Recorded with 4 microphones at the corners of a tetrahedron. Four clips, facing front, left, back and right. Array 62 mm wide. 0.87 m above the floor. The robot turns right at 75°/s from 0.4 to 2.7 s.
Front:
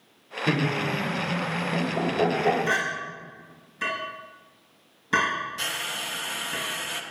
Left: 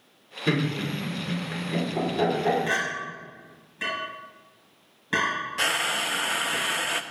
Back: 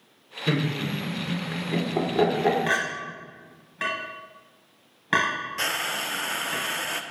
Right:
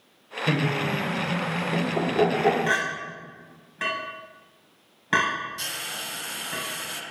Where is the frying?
115° left, 0.5 m.